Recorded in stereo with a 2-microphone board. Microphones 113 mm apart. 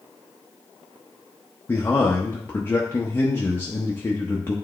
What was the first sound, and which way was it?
A man speaking, 20° left (ahead or behind).